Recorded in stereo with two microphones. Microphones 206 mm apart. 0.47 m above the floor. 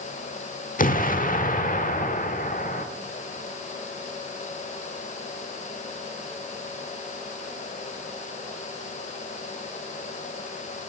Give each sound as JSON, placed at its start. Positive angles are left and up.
{"t": 0.8, "sound": "an explosion", "side_deg": 40, "distance_m": 1.1}